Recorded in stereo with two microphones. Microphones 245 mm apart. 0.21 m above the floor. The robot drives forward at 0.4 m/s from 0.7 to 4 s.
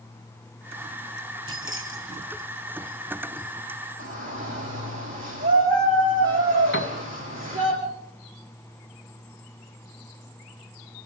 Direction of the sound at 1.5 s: 55° right (ahead or behind).